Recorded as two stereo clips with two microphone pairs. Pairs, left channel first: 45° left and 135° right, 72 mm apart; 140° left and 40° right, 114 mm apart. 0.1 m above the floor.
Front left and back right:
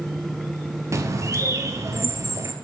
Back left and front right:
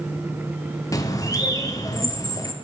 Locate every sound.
0.9 s a bird: 170° right, 0.6 m